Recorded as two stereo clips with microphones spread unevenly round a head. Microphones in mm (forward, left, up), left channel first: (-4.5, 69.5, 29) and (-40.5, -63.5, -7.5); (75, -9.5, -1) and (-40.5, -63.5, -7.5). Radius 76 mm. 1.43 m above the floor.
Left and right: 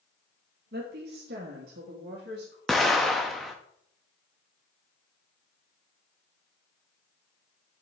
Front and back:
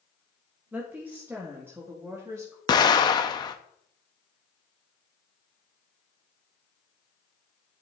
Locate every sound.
0.7 s a woman speaking: 75° right, 1.4 m; by 2.6 s 85° right, 2.5 m
2.7 s an explosion: 10° left, 0.8 m